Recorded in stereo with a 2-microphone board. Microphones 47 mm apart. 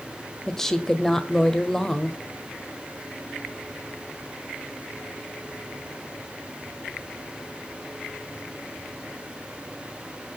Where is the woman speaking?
10° left (ahead or behind), 1.4 m.